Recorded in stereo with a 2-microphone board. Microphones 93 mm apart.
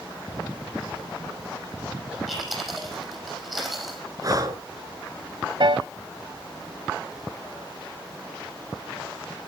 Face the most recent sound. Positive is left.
turn(degrees=-60)  # may be behind; listen again after turning